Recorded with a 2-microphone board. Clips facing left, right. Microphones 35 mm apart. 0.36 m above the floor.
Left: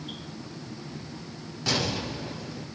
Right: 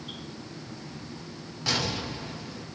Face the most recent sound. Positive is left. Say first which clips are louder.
# left 1 dB
turn(degrees=0)  # may be behind; listen again after turning